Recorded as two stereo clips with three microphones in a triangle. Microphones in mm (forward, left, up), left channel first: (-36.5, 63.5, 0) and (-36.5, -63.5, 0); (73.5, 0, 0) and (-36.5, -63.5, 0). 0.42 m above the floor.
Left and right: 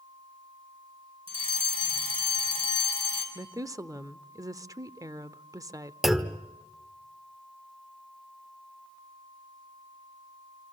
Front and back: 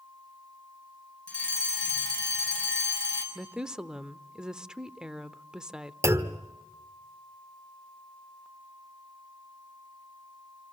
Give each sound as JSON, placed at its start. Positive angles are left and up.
{"t": 1.3, "sound": "a fire alarm", "azimuth_deg": -50, "distance_m": 5.0}
{"t": 3.4, "sound": "a woman speaking", "azimuth_deg": -70, "distance_m": 0.8}
{"t": 6.0, "sound": "a clunk", "azimuth_deg": -175, "distance_m": 1.2}